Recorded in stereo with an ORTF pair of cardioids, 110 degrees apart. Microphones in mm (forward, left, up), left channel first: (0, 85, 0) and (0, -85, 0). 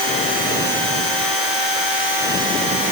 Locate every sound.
Only background noise.